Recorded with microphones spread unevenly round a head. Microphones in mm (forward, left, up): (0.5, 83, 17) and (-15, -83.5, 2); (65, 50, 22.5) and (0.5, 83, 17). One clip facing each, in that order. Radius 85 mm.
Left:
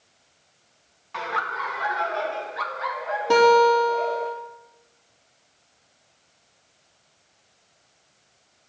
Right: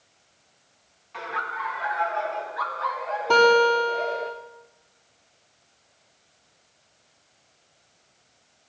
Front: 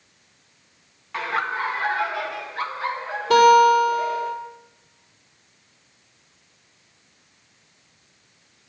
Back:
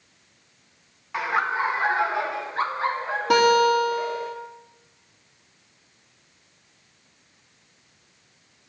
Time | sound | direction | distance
1.1 | laughter | 80° left | 1.2 m
3.3 | a guitar | 165° left | 3 m